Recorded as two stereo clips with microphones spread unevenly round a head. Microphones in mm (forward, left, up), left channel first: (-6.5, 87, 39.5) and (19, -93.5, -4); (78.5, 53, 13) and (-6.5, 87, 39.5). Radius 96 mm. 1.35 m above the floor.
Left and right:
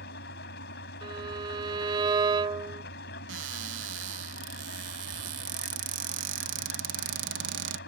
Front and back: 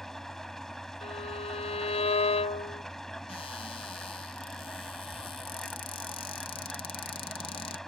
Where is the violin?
10° right.